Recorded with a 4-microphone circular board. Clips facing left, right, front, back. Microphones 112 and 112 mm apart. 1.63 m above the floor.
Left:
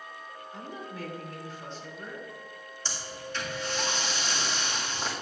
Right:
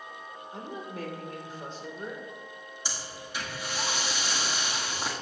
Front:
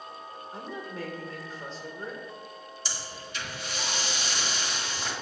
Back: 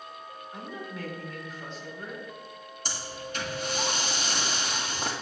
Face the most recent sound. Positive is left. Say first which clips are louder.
# left 3 dB, back 5 dB
turn(degrees=-165)